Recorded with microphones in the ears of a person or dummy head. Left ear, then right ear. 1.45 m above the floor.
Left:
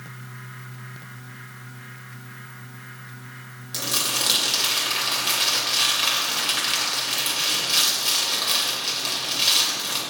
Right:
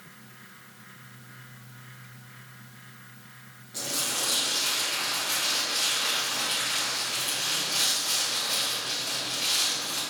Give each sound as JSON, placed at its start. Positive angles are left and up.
{"t": 3.7, "sound": "crumpling", "side_deg": 55, "distance_m": 1.9}